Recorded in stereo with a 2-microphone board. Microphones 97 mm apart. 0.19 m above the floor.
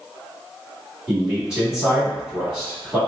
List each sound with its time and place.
1.1 s a man speaking: 5° right (ahead or behind), 1.1 m